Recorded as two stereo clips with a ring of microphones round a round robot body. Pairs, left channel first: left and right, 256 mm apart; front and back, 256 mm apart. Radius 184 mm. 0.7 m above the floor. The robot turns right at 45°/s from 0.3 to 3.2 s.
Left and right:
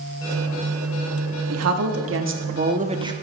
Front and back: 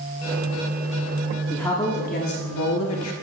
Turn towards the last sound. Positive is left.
turn(degrees=-10)